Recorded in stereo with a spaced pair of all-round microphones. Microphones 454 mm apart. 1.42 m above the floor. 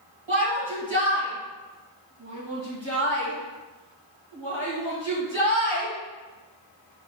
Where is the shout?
75° right (ahead or behind), 2 m.